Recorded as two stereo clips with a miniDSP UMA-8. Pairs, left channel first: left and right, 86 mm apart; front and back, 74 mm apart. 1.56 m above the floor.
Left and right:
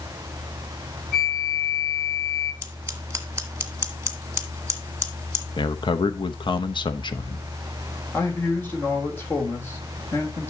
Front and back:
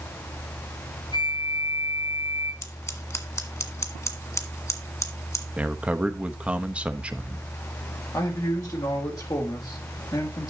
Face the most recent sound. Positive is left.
turn(degrees=25)